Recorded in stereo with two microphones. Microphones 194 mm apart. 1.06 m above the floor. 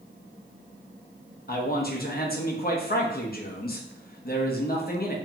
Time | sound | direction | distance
1.5 | a man speaking | 55° left (ahead or behind) | 0.6 m